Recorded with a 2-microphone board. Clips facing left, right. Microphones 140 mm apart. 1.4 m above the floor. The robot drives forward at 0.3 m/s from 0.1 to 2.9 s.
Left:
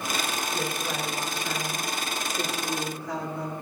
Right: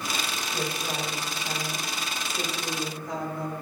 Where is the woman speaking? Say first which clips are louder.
Left 1 dB; 25° right (ahead or behind), 8.5 m.